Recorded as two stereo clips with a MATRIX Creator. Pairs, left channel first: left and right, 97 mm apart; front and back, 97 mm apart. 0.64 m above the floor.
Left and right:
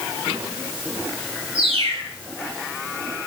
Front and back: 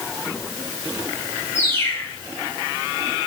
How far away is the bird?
About 4 m.